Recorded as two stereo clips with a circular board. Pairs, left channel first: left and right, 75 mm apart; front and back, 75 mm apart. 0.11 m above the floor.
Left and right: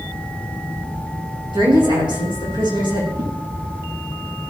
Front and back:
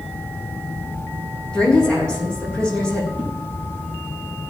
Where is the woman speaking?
80° right, 6.5 m.